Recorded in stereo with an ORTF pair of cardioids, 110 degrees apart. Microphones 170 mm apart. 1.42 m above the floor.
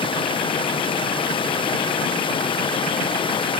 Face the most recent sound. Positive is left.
turn(degrees=30)